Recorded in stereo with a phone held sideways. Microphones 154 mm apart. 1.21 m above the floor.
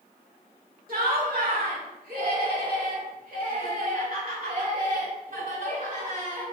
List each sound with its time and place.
0.9 s laughter: 70° right (ahead or behind), 2.5 m; by 6.4 s 60° right (ahead or behind), 4.5 m